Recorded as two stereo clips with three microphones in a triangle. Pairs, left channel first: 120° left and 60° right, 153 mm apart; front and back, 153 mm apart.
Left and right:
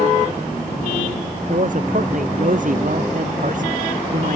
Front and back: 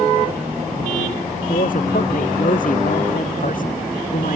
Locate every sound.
1.5 s a man speaking: 30° right